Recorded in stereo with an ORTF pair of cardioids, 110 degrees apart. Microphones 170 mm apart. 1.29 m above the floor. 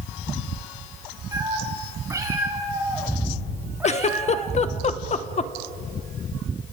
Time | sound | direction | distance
1.3 | a cat meowing | 20° right | 5.5 m
3.8 | a giggle | 40° left | 0.8 m